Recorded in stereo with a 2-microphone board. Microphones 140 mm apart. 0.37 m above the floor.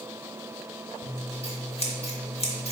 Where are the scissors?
45° left (ahead or behind), 0.8 m.